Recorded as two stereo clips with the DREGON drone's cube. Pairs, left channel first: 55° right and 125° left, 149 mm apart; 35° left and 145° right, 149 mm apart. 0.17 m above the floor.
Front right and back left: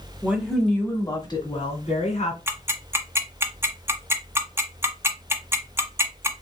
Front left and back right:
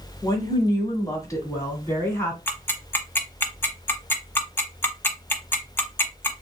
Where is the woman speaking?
60° left, 1.4 m; by 2.4 s 35° right, 2 m.